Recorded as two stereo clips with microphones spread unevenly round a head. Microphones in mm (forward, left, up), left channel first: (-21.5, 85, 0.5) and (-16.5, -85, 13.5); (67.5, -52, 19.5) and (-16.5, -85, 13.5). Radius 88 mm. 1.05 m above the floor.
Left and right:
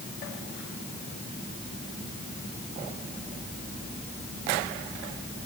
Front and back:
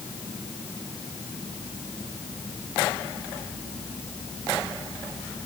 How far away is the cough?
I don't hear a cough.